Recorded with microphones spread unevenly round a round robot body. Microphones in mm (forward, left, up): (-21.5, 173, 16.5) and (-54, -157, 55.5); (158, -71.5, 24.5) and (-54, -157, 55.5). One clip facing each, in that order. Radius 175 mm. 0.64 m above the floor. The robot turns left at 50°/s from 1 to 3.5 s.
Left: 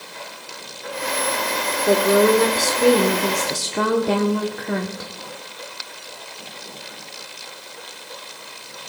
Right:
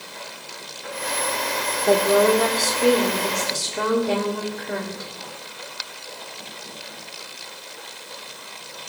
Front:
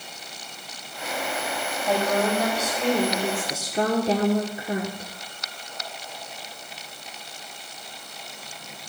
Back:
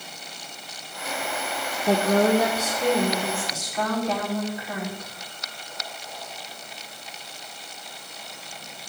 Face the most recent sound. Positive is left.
turn(degrees=80)